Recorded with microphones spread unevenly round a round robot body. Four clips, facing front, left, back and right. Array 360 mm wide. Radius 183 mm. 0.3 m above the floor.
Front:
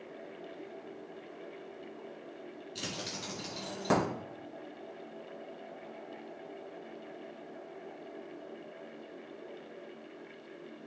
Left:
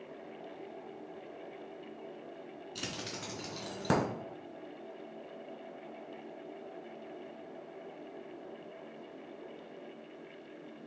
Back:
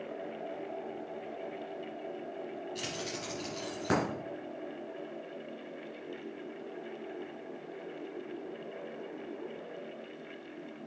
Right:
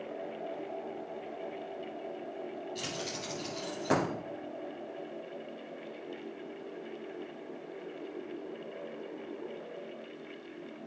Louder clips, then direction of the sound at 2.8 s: Right 4 dB, back 3 dB; 70° left.